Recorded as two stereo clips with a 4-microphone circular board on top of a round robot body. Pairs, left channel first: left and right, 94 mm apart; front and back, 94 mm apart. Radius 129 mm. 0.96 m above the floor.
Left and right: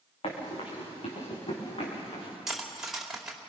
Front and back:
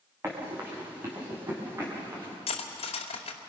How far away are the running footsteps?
About 6.5 m.